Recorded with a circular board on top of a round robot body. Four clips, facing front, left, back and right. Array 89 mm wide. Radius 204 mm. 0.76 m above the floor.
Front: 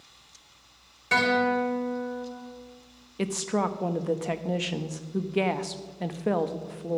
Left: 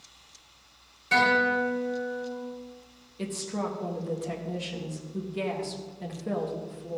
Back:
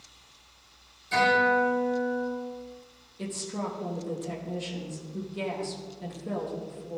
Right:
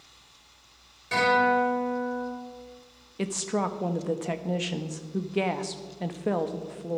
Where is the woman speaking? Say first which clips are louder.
Right 4 dB, front 7 dB; 30° right, 1.1 m.